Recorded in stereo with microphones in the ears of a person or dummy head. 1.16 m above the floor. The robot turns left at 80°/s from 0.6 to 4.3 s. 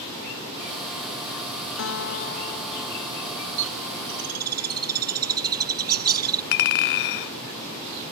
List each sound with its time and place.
1.8 s a guitar: 90° left; by 3.6 s 60° right
3.6 s a bird: 65° right (ahead or behind); by 6.4 s 55° right (ahead or behind)
6.5 s a clink: 60° left (ahead or behind)